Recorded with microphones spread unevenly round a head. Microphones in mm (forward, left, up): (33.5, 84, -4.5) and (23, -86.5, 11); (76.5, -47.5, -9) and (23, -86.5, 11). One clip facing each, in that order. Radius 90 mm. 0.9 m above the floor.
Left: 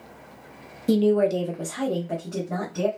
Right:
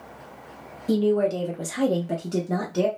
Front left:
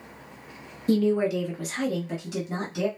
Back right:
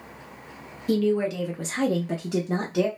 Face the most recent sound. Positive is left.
turn(degrees=-135)